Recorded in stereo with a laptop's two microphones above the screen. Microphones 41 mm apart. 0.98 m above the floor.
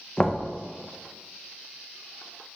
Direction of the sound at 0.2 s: 20° left (ahead or behind).